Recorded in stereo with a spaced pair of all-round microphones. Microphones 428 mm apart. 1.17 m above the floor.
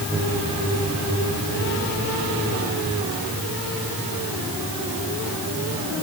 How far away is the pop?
I don't hear a pop.